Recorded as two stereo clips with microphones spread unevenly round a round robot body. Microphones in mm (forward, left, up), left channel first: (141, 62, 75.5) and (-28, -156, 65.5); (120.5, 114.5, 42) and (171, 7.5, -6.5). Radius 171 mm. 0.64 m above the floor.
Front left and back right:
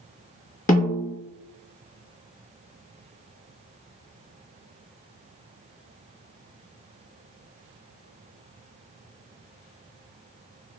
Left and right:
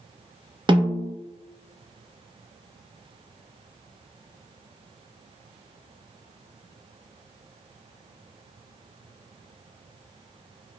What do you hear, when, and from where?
0.7 s a snare drum: 5° right, 0.9 m